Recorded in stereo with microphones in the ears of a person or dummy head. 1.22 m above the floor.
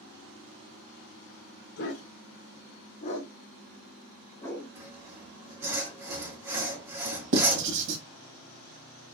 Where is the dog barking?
60° left (ahead or behind), 1.8 m; by 4.7 s 10° left (ahead or behind), 2.5 m.